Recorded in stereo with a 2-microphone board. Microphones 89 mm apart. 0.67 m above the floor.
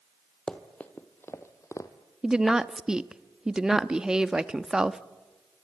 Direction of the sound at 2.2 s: 10° right (ahead or behind).